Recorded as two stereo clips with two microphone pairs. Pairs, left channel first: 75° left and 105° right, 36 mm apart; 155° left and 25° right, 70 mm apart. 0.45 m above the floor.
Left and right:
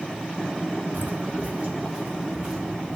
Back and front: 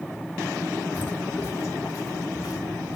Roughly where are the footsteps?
Behind right.